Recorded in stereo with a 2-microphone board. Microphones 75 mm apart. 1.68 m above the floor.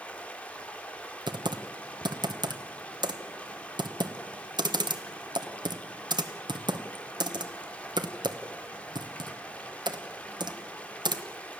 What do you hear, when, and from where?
0.0 s running water: 20° left (ahead or behind), 2.5 m
1.3 s typing on a keyboard: 75° right (ahead or behind), 1.4 m